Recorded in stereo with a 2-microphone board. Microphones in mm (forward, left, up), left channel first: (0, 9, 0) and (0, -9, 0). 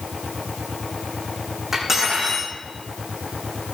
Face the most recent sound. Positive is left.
turn(degrees=-25)  # may be behind; listen again after turning